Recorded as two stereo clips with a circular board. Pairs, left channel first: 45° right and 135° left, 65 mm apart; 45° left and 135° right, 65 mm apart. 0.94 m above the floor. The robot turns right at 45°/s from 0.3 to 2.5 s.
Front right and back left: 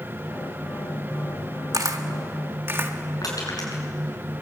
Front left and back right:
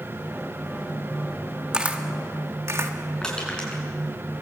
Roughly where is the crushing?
Ahead right.